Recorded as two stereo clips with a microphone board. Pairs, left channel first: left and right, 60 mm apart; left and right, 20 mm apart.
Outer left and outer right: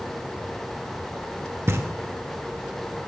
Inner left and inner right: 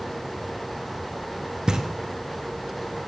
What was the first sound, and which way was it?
Knocking, 45° right (ahead or behind).